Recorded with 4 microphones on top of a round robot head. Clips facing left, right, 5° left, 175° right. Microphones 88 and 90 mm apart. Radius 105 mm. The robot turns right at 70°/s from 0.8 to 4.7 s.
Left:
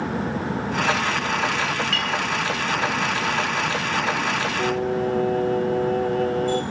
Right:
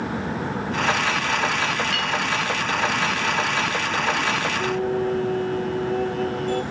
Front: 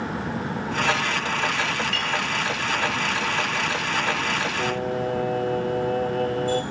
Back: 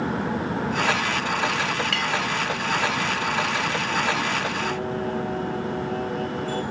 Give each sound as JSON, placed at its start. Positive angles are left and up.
{"t": 1.9, "sound": "a clink", "azimuth_deg": -170, "distance_m": 1.9}
{"t": 4.6, "sound": "singing", "azimuth_deg": 25, "distance_m": 1.3}